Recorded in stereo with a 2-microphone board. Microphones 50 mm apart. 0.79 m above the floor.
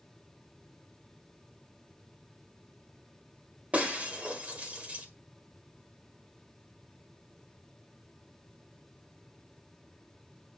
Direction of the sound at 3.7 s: 30° right (ahead or behind).